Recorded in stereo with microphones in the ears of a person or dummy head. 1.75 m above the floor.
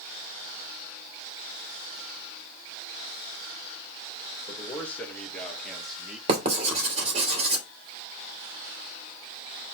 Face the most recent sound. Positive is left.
turn(degrees=-40)  # may be behind; listen again after turning